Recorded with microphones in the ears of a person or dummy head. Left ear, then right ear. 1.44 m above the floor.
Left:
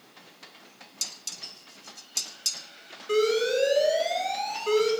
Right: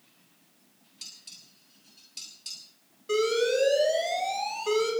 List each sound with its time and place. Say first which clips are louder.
1.0 s dishes clattering: left 9 dB; 45° left (ahead or behind), 1.8 m
3.1 s an alarm: left 1 dB; 5° right (ahead or behind), 4.5 m